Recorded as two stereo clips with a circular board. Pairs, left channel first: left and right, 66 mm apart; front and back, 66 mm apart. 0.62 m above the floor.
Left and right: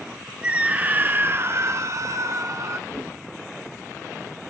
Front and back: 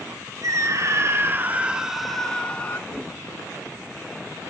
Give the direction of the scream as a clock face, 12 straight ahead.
5 o'clock.